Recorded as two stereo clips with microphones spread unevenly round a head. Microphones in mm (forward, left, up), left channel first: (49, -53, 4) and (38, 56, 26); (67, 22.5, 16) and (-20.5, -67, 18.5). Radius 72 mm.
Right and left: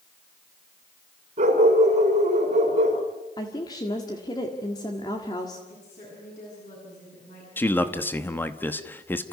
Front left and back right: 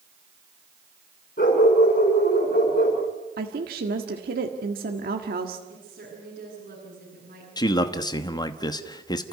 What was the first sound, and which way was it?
A dog barking, 80° left.